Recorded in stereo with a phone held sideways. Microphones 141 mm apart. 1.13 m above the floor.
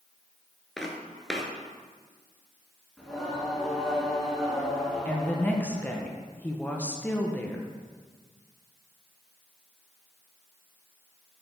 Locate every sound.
0.8 s footsteps: centre (ahead or behind), 1.1 m
3.0 s singing: 5° left (ahead or behind), 2.0 m
5.0 s a woman speaking: 10° left (ahead or behind), 0.8 m